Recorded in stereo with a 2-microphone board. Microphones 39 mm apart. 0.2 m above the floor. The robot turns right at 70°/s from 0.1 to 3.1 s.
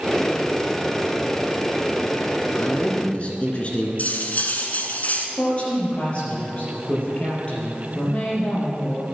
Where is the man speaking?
105° left, 2.5 m; by 3.9 s 140° left, 2.5 m.